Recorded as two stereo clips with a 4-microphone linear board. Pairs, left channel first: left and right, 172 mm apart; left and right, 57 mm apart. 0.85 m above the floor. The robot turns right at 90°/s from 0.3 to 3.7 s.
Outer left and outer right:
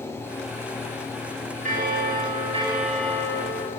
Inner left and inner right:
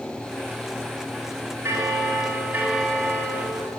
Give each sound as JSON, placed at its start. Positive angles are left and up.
{"t": 1.6, "sound": "a bell", "azimuth_deg": -125, "distance_m": 1.2}